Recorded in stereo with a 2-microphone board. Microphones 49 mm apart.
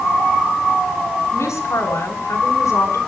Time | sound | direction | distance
1.3 | a woman speaking | 85° left | 9.5 m